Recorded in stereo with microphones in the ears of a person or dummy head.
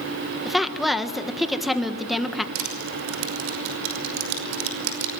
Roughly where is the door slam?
I don't hear a door slam.